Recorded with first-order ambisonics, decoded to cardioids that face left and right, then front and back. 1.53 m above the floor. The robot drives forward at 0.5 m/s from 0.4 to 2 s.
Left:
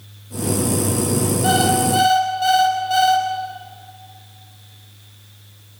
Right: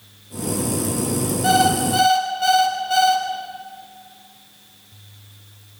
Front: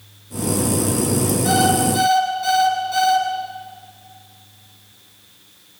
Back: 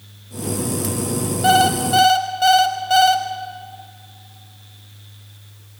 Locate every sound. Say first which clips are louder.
1.4 s an alarm clock: right 1 dB, back 4 dB; straight behind, 5.5 m